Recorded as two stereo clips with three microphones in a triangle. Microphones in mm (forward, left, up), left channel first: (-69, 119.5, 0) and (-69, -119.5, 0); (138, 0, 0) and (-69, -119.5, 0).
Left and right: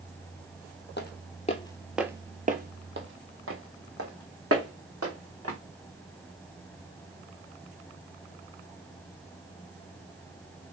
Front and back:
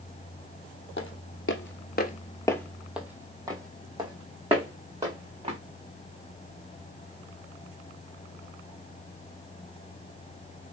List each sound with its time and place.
1.0 s footsteps: 55° left, 0.8 m; by 5.6 s 85° right, 2.5 m